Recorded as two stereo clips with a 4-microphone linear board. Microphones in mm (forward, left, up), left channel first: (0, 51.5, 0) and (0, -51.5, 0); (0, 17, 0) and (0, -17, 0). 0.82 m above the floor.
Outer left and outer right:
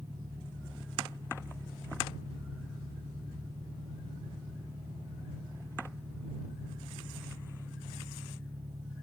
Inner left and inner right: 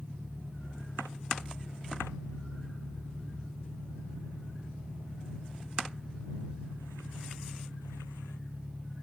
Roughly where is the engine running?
Right.